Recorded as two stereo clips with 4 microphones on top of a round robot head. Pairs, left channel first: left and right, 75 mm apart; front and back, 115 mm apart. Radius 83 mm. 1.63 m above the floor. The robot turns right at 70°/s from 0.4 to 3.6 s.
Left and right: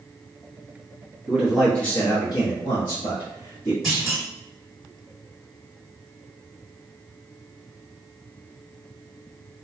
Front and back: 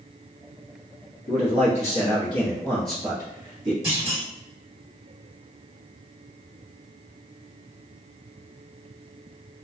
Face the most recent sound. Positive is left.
turn(degrees=175)